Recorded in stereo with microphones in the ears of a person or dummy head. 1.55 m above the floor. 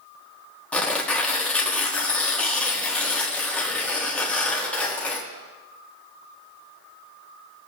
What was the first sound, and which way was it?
Tearing paper, 10° left (ahead or behind).